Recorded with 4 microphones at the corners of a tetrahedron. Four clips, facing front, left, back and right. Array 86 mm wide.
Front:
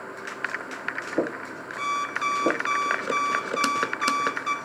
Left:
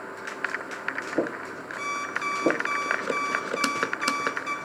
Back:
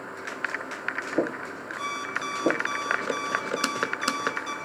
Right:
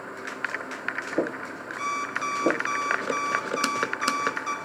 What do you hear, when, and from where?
1.8 s an alarm clock: 15° right, 4.5 m